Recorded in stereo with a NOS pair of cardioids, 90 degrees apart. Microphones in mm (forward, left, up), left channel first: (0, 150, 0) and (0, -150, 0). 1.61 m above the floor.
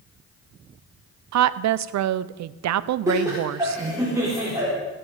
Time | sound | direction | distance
1.3 | a woman speaking | 60° right | 0.8 m
3.1 | laughter | 10° right | 5 m